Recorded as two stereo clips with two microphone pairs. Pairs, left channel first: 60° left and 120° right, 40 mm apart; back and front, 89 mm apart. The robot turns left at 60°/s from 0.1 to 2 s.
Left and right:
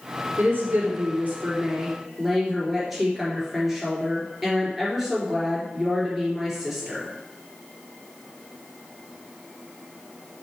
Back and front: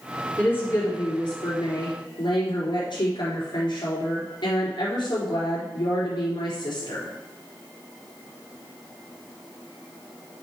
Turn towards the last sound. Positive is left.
turn(degrees=155)